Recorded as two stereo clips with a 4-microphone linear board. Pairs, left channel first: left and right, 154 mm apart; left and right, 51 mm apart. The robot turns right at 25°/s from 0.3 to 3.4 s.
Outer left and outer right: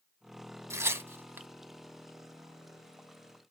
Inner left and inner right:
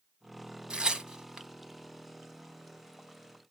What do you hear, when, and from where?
0.7 s tearing paper: 20° right (ahead or behind), 1.0 m; by 1.5 s 15° right (ahead or behind), 1.0 m